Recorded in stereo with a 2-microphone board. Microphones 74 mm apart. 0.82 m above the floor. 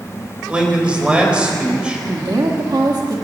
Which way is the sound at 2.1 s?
60° right (ahead or behind).